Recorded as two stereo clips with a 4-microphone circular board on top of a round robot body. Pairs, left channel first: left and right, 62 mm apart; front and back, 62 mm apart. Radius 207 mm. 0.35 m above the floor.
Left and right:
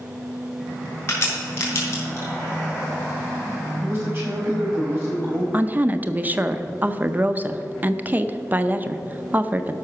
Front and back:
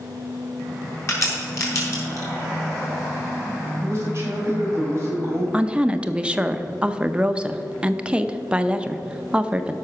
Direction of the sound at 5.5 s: 120° right.